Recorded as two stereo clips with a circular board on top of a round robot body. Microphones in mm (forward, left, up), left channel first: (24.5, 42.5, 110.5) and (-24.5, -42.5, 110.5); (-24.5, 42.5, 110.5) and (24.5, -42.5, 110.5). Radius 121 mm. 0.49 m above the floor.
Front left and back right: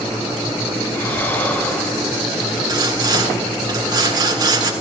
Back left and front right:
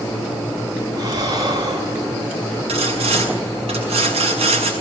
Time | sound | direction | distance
1.0 | breathing | 10° right | 7 m
2.7 | sawing | 70° right | 7.5 m